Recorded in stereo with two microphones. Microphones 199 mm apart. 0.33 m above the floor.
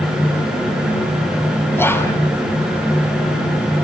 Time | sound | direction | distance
1.8 | whispering | 10° left (ahead or behind) | 3 m